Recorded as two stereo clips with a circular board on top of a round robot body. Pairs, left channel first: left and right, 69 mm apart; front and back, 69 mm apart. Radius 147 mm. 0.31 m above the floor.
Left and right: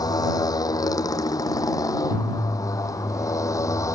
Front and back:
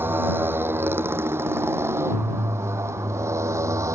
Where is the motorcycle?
120° left; by 4.0 s 135° left.